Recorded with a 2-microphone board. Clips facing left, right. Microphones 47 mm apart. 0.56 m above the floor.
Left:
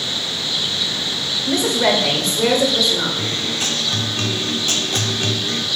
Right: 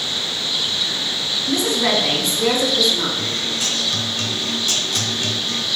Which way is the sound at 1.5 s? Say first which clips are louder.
Left 2 dB; 60° left (ahead or behind).